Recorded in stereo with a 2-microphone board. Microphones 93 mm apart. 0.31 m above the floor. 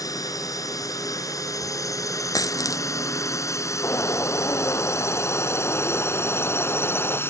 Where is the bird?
25° left (ahead or behind).